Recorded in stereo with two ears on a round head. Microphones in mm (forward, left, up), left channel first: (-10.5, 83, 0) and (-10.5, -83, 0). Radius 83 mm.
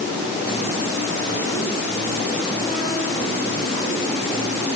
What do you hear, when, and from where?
Only background noise.